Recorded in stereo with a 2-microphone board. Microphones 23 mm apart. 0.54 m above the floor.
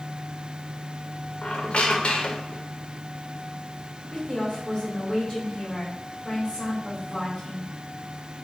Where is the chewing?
I don't hear chewing.